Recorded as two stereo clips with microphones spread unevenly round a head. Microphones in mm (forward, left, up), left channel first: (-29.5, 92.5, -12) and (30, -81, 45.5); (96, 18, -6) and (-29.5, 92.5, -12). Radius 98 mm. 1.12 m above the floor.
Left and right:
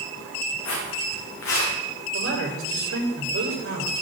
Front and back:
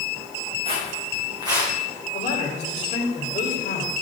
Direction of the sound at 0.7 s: 105° left.